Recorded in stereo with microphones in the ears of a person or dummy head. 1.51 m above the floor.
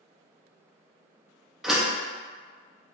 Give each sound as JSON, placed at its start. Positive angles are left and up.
{"t": 1.6, "sound": "a door slam", "side_deg": -5, "distance_m": 0.6}